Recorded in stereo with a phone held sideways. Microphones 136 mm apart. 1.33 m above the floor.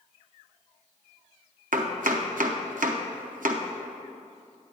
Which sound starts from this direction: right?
Chopping, at 1.7 s.